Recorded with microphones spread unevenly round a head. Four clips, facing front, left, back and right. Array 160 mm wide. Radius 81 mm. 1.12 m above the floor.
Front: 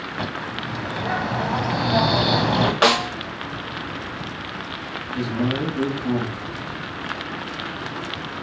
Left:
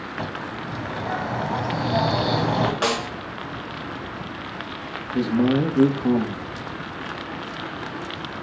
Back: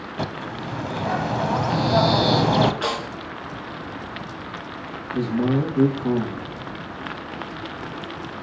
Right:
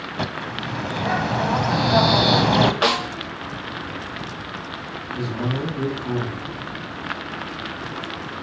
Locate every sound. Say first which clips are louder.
0.2 s a bird: right 3 dB, back 1 dB; 140° right, 1.0 m
2.8 s a snare drum: right 3 dB, front 8 dB; 15° right, 1.1 m
5.1 s a man speaking: left 7 dB, back 2 dB; 110° left, 2 m